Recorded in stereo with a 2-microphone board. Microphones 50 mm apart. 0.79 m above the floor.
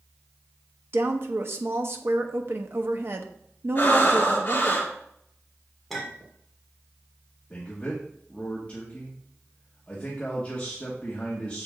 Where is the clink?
5° left (ahead or behind), 1.6 m.